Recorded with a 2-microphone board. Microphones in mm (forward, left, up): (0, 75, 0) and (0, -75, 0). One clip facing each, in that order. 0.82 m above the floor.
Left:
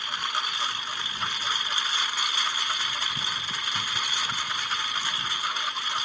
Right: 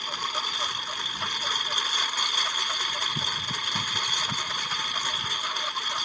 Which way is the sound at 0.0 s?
35° right (ahead or behind).